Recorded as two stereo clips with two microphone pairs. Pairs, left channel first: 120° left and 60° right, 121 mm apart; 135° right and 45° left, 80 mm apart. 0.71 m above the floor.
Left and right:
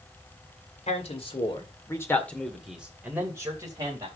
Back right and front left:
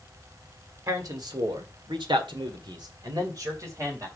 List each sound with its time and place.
0.9 s a man speaking: 90° left, 2 m; by 4.1 s 5° right, 3 m